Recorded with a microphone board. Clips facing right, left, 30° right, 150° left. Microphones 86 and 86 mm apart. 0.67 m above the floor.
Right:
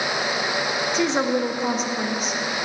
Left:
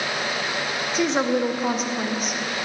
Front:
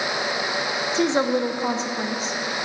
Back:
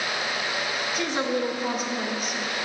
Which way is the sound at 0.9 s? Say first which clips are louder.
Left 1 dB, front 6 dB; 5° left.